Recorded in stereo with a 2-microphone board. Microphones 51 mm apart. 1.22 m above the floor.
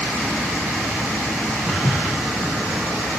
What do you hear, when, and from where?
1.7 s footsteps: 50° right (ahead or behind), 1.9 m